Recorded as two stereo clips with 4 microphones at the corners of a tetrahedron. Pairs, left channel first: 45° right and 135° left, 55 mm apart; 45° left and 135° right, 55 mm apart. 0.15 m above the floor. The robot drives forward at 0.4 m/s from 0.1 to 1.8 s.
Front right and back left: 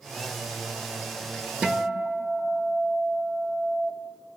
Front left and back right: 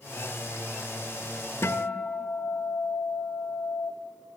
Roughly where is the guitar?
Ahead left.